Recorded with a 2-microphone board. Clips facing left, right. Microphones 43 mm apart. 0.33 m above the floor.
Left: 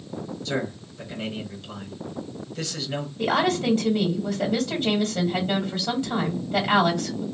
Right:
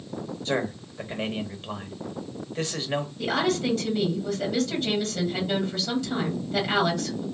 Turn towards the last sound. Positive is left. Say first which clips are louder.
# left 4 dB
turn(degrees=30)  # may be behind; listen again after turning